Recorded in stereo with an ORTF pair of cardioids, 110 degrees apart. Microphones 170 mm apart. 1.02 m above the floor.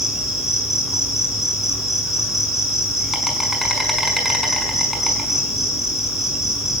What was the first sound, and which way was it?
An insect, straight ahead.